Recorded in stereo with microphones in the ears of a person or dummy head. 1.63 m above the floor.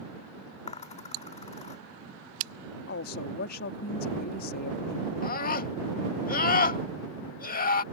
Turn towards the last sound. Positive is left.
turn(degrees=60)  # may be behind; listen again after turning